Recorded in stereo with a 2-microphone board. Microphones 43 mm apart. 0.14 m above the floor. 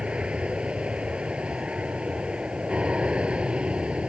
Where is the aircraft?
25° right (ahead or behind).